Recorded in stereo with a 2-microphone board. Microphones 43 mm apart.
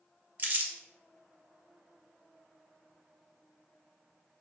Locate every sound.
0.4 s crumpling: 45° right (ahead or behind), 0.6 m